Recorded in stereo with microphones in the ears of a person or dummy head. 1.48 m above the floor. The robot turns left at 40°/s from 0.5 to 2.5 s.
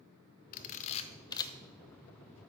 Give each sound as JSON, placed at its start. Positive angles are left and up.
{"t": 0.5, "sound": "a camera shutter", "side_deg": 45, "distance_m": 0.6}